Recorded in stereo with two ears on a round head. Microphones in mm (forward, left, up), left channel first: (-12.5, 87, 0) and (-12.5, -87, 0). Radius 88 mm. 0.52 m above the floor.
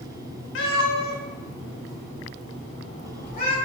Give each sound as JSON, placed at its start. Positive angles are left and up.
{"t": 0.6, "sound": "a cat meowing", "side_deg": 65, "distance_m": 0.7}